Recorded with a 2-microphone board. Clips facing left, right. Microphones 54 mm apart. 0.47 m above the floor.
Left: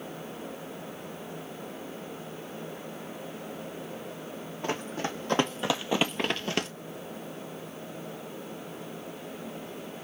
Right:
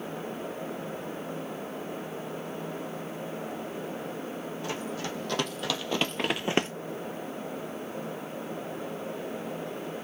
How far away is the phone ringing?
No phone ringing in this recording.